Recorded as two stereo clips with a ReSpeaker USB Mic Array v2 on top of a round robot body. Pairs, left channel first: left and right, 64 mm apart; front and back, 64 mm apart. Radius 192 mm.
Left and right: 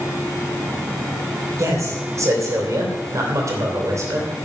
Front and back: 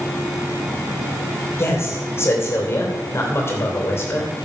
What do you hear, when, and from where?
1.6 s a man speaking: 50° right, 3 m